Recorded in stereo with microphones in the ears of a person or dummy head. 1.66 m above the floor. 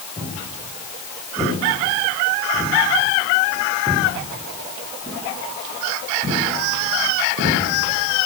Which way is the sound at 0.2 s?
15° left (ahead or behind).